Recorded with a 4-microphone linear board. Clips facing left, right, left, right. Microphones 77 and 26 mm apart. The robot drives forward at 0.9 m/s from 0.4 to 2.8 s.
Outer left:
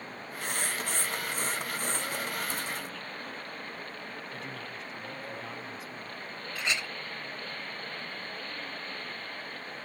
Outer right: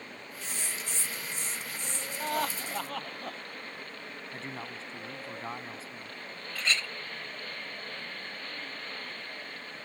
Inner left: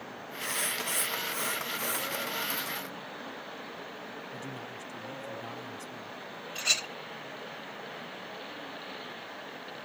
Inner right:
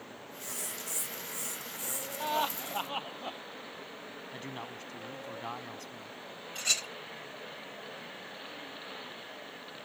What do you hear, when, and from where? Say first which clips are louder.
0.4 s writing: outer left 7 dB, inner left 9 dB; 60° left (ahead or behind); by 2.1 s 50° left (ahead or behind)
2.2 s laughter: outer right 3 dB, inner right 2 dB; 55° right (ahead or behind); by 3.4 s 60° right (ahead or behind)
4.3 s a man speaking: even, inner left 1 dB; 30° right (ahead or behind)
6.5 s a clink: outer right 1 dB, inner left 3 dB; 15° left (ahead or behind)